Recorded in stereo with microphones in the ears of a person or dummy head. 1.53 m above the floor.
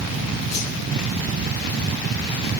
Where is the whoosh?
30° left (ahead or behind), 4.5 m.